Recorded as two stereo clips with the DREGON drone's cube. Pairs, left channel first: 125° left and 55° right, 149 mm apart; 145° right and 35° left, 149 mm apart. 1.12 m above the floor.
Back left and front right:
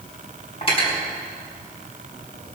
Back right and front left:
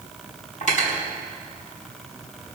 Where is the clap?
No clap in this recording.